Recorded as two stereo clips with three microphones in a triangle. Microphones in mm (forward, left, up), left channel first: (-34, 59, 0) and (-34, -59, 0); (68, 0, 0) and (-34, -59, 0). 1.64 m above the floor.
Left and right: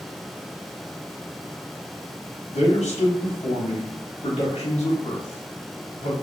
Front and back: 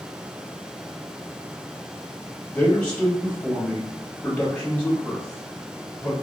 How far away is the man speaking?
About 0.9 m.